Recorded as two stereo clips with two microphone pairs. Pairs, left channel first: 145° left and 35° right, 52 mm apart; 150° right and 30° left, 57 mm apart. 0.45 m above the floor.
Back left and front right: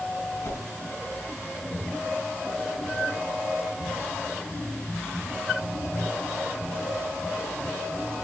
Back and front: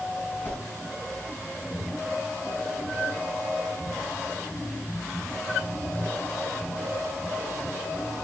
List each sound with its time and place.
0.4 s a whoosh: 150° left, 4.5 m